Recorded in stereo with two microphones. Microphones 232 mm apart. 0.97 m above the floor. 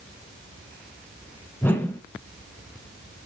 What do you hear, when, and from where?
1.6 s a whoosh: 10° left (ahead or behind), 0.7 m